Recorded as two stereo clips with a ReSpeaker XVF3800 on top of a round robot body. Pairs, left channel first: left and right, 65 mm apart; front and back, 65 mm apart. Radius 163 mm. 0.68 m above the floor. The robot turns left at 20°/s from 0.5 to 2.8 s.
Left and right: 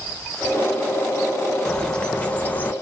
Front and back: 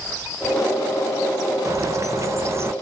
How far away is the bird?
About 0.8 m.